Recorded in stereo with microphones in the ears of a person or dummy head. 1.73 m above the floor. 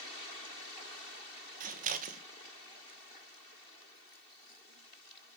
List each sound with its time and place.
1.6 s scissors: 40° right (ahead or behind), 1.4 m